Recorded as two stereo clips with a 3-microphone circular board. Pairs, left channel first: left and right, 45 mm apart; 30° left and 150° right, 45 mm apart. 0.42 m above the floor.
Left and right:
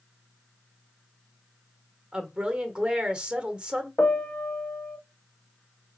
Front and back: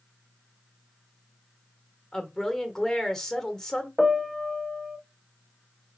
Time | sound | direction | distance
2.1 | a woman speaking | 40° right | 1.0 m
4.0 | a piano | 120° left | 0.6 m